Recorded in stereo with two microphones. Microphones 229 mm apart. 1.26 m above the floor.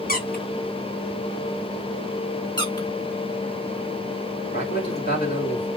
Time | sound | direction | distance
0.1 | a squeak | 40° left (ahead or behind) | 1.4 m
2.6 | a squeak | 20° left (ahead or behind) | 1.6 m
4.5 | a man speaking | 45° left (ahead or behind) | 3 m